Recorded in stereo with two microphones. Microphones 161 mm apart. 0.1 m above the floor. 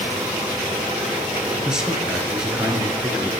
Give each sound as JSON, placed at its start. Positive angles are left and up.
{"t": 1.6, "sound": "a man speaking", "side_deg": -5, "distance_m": 1.7}